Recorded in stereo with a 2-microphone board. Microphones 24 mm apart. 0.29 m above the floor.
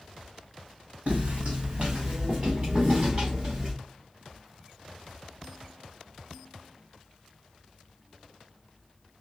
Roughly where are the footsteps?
Right.